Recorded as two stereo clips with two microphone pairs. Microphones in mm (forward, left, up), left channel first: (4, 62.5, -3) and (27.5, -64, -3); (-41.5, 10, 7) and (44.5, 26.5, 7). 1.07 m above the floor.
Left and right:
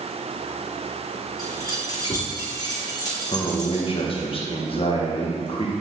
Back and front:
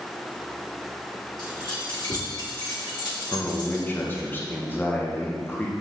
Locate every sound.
1.4 s keys jangling: 160° left, 2 m
3.3 s a man speaking: 130° left, 1.1 m